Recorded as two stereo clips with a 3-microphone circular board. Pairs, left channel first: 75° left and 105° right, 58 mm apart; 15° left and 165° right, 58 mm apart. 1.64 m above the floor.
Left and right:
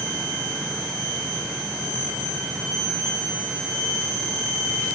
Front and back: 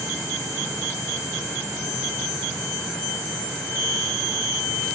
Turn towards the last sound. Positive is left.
No sound to turn to.